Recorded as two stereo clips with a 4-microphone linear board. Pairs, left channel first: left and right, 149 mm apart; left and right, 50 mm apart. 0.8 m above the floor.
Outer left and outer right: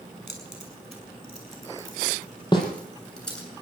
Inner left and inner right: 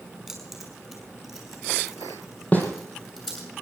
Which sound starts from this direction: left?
A snare drum, at 2.5 s.